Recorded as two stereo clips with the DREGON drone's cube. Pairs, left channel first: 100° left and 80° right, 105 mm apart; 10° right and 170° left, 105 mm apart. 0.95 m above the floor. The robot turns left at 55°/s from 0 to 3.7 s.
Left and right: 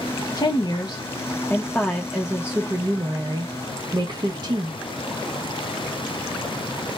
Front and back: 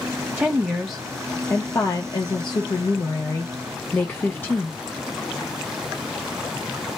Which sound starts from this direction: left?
A woman speaking, at 0.4 s.